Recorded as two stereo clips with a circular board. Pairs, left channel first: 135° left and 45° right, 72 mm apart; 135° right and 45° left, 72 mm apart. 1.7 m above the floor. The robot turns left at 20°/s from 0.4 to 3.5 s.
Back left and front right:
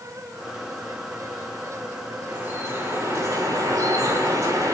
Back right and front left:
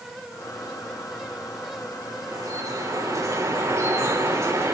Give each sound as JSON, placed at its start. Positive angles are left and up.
{"t": 2.3, "sound": "dripping", "azimuth_deg": 20, "distance_m": 3.5}